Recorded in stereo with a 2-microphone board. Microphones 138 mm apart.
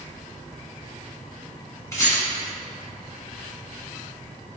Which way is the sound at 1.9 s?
25° left (ahead or behind).